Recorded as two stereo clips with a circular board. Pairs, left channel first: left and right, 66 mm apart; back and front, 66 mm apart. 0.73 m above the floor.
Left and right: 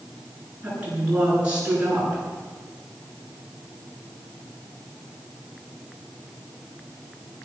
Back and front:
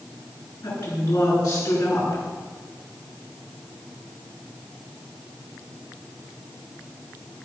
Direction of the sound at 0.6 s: 165° right.